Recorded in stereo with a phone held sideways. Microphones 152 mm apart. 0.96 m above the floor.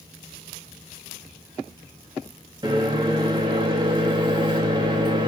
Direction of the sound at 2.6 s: 25° right (ahead or behind).